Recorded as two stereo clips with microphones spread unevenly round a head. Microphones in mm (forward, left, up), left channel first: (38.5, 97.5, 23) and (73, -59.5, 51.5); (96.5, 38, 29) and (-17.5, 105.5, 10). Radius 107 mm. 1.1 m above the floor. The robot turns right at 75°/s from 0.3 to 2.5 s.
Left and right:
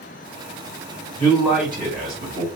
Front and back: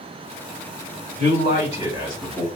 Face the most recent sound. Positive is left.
turn(degrees=-90)